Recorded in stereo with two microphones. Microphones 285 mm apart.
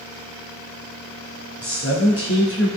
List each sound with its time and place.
1.6 s a man speaking: 50° left (ahead or behind), 1.7 m